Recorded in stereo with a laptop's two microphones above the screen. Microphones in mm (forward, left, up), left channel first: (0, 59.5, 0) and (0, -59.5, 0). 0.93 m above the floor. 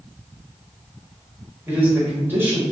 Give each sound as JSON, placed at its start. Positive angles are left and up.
{"t": 1.7, "sound": "a man speaking", "side_deg": -20, "distance_m": 1.6}